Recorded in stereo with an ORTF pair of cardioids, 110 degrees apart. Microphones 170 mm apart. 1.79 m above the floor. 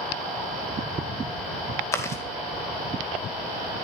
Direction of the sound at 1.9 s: 15° left.